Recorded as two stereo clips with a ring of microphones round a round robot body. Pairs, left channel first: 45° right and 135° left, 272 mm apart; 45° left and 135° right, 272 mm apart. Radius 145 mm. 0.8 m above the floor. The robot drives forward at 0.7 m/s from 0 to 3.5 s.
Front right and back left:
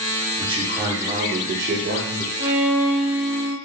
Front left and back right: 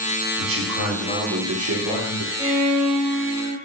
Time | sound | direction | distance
0.4 | a man speaking | 155° right | 1.2 m
2.4 | a violin | 140° left | 2.0 m